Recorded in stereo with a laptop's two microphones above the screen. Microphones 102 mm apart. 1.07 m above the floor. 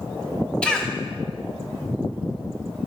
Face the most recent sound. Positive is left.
turn(degrees=10)  # may be behind; listen again after turning